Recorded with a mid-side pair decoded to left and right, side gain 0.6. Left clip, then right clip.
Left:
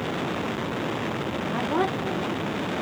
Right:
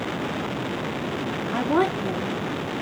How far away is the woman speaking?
About 2.5 m.